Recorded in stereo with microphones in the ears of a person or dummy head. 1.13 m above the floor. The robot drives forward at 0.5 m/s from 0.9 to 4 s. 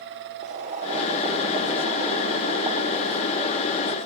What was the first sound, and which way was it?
Boiling, 40° right (ahead or behind).